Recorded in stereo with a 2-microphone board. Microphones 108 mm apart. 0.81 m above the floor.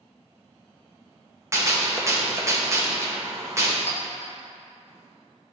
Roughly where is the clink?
Left.